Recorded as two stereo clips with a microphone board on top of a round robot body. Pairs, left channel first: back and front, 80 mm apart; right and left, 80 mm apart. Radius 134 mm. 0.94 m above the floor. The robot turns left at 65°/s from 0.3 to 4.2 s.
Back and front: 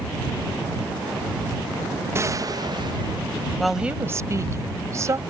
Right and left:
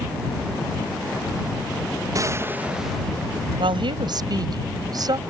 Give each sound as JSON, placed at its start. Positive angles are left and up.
{"t": 2.1, "sound": "a gunshot", "azimuth_deg": 50}
{"t": 3.6, "sound": "a woman speaking", "azimuth_deg": 95}